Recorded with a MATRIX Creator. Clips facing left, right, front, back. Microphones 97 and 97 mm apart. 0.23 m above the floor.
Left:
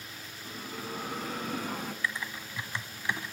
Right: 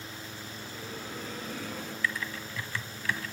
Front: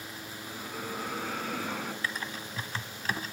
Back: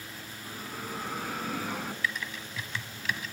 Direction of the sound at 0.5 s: 95° left.